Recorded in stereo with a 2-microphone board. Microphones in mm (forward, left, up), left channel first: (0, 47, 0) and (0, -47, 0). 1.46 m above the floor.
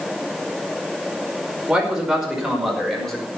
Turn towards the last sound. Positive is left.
turn(degrees=5)  # may be behind; listen again after turning